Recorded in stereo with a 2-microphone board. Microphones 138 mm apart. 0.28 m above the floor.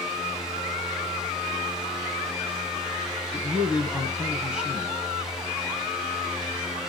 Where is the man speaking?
5° right (ahead or behind), 2.5 m.